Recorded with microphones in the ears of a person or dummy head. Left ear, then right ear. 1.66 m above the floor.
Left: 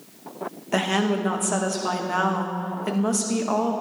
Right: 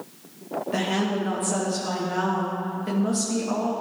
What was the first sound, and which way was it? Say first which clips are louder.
A woman speaking: left 4 dB; 35° left (ahead or behind).